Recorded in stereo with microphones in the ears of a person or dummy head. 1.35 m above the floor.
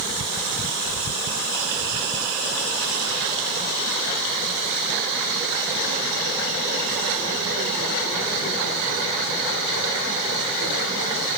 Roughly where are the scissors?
No scissors in this recording.